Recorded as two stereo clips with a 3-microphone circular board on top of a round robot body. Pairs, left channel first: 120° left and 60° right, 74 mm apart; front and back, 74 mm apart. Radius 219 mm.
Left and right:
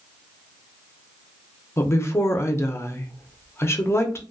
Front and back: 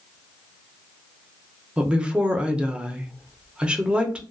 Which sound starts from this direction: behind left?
A woman speaking, at 1.8 s.